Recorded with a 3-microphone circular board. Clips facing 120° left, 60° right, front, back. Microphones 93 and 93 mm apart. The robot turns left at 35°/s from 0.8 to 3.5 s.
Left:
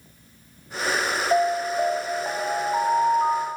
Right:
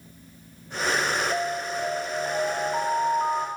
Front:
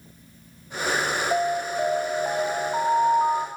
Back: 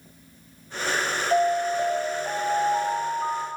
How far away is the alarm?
About 3 m.